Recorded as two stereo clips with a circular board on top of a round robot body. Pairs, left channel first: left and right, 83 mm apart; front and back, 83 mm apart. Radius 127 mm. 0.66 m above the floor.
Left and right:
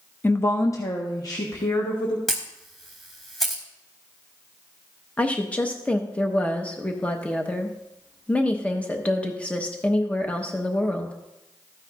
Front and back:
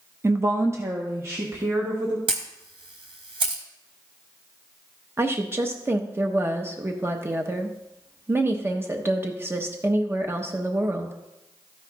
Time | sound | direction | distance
0.2 | a woman speaking | 145° left | 0.6 m
2.3 | a camera shutter | 175° left | 0.6 m
5.2 | a woman speaking | 150° left | 1.0 m